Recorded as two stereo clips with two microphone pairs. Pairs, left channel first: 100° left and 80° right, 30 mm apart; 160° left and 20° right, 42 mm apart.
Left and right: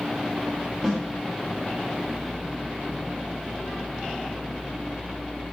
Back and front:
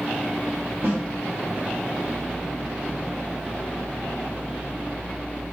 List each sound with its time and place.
0.8 s a snare drum: straight ahead, 1.7 m